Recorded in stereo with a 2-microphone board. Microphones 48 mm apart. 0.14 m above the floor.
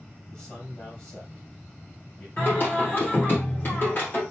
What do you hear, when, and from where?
0.3 s a man speaking: 25° left (ahead or behind), 3 m
2.4 s singing: 45° left (ahead or behind), 3 m